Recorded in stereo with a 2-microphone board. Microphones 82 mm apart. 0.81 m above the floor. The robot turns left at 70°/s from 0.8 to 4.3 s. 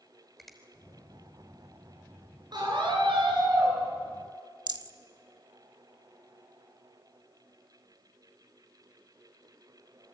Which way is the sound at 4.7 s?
60° right (ahead or behind).